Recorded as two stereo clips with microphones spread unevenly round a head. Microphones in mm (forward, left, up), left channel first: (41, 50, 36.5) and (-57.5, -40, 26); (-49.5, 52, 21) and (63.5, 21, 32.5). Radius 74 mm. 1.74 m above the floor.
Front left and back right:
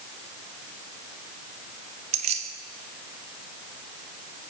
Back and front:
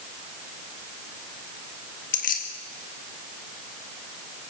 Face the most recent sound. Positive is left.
turn(degrees=180)